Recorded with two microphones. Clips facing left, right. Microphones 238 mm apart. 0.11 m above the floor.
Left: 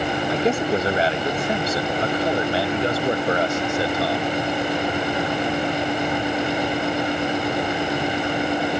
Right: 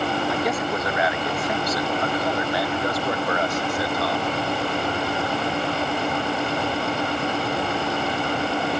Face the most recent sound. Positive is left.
turn(degrees=25)  # may be behind; listen again after turning